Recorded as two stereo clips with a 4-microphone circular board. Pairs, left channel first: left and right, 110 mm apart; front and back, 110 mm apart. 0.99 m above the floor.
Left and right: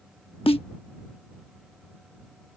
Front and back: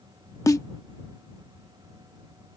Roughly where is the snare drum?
Ahead left.